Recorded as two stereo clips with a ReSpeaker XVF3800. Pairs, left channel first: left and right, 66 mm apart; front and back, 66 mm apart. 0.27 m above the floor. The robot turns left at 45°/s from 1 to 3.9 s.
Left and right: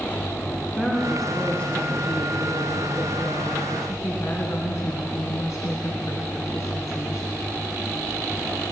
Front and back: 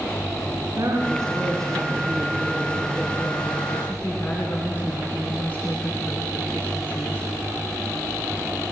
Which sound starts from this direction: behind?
A woman speaking, at 0.8 s.